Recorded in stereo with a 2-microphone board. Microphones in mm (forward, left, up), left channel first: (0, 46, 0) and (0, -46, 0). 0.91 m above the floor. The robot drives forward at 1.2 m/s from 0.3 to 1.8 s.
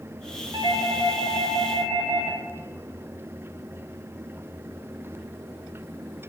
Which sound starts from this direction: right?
A doorbell, at 0.5 s.